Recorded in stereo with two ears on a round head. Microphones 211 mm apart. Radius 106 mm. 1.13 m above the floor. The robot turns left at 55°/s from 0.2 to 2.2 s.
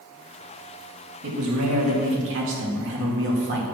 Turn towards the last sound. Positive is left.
turn(degrees=-115)